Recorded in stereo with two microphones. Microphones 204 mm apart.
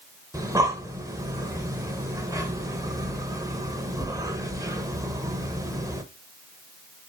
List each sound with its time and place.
0.3 s breathing: 15° right (ahead or behind), 1.2 m